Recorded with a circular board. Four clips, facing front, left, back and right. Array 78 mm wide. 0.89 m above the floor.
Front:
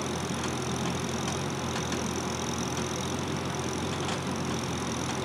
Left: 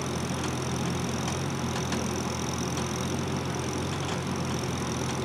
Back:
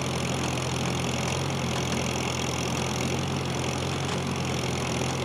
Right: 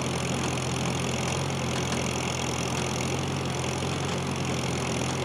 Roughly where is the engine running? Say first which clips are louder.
Right 2 dB, back 2 dB; behind right.